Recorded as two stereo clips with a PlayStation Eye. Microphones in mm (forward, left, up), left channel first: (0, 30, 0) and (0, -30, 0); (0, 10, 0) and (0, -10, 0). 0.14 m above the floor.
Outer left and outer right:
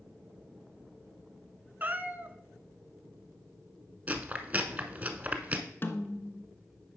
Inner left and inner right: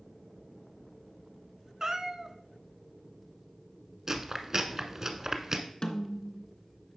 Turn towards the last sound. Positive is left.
turn(degrees=40)  # may be behind; listen again after turning